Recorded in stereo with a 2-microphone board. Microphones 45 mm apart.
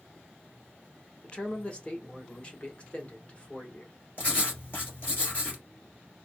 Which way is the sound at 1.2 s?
25° left (ahead or behind).